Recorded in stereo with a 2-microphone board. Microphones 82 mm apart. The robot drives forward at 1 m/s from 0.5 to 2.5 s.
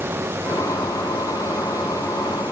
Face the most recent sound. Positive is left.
No sound to turn to.